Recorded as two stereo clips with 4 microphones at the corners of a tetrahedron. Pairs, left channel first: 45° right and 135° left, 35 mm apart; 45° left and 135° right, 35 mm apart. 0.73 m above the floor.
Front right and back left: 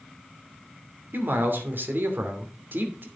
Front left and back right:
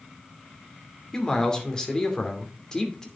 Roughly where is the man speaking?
Behind left.